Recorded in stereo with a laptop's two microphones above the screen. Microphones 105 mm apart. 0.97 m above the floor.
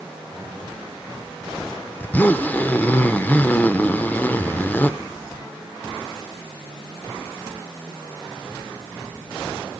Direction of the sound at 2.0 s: 15° left (ahead or behind).